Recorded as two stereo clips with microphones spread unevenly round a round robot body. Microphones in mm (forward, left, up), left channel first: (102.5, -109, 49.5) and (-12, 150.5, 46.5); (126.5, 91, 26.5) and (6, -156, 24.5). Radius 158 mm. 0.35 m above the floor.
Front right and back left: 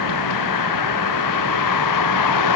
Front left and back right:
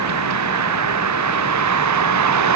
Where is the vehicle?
95° right.